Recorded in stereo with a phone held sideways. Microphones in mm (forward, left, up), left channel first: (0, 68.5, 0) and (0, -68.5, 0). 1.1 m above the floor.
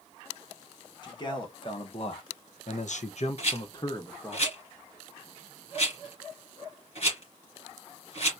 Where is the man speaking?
30° left (ahead or behind), 1.4 m; by 4.4 s 15° left (ahead or behind), 1.0 m.